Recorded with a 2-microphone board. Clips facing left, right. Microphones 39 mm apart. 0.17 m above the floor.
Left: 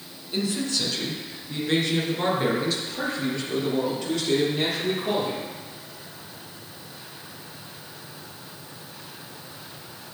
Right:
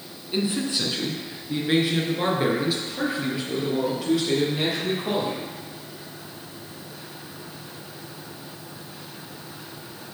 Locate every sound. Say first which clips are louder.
0.3 s a man speaking: right 2 dB; 25° right (ahead or behind), 1.3 m; by 5.4 s 10° right (ahead or behind), 3.5 m